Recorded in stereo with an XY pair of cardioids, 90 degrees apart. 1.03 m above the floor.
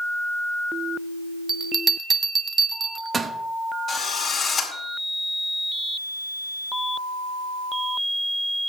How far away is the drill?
About 4 m.